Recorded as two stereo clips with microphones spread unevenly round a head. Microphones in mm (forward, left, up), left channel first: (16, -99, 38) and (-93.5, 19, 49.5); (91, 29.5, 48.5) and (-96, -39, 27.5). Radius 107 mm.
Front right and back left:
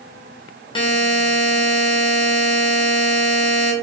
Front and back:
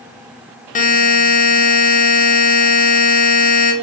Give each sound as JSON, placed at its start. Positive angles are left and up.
{"t": 0.8, "sound": "a buzzer", "azimuth_deg": -15, "distance_m": 0.7}